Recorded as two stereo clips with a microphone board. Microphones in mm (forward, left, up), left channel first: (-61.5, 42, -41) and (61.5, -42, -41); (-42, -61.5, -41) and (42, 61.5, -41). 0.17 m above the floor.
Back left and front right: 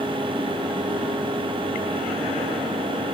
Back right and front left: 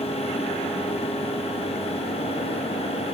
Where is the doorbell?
No doorbell in this recording.